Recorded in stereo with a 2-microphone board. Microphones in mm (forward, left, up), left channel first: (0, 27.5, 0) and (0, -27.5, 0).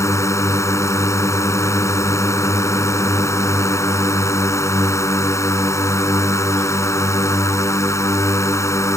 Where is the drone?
70° left (ahead or behind).